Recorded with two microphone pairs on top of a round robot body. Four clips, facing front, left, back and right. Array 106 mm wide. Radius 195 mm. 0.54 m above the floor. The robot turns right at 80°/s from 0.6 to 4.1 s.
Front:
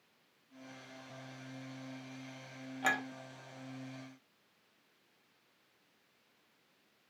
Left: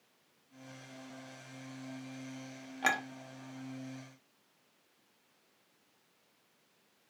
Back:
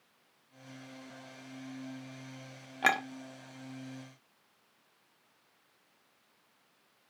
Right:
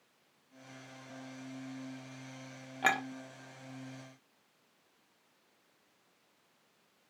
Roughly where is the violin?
No violin in this recording.